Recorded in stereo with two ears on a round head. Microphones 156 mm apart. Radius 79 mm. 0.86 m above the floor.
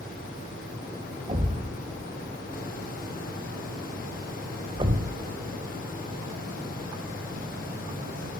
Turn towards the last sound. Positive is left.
turn(degrees=-30)  # may be behind; listen again after turning